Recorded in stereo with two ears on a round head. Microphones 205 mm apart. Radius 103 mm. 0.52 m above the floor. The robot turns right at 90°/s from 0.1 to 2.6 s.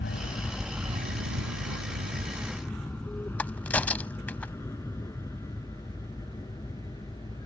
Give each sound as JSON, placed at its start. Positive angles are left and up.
{"t": 0.0, "sound": "an aircraft", "side_deg": 50}
{"t": 3.4, "sound": "a crack", "side_deg": 5}